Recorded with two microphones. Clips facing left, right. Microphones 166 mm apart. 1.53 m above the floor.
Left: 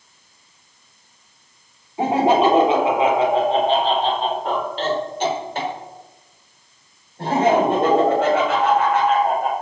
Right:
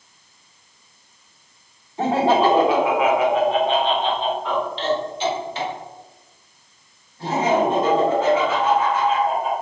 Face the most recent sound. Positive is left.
turn(degrees=75)  # may be behind; listen again after turning